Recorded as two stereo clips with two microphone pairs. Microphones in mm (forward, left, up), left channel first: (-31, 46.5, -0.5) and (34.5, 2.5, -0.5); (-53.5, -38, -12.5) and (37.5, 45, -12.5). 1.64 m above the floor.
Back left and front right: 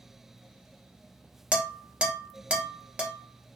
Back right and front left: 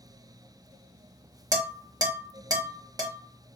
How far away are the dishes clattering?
About 0.9 m.